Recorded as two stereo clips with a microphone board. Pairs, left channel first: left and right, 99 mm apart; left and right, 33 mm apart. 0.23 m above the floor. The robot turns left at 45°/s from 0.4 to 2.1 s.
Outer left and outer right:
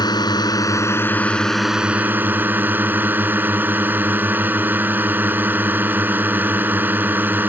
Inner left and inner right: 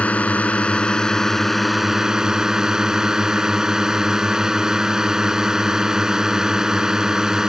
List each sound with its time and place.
0.0 s a drone: 55° left; by 7.5 s 20° right